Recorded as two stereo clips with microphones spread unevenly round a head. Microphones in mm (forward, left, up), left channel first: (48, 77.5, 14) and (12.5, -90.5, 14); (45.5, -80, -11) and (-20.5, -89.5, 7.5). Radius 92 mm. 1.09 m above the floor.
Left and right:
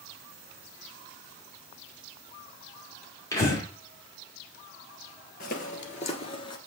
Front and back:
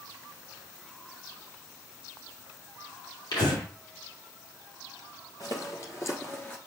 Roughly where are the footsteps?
Ahead left.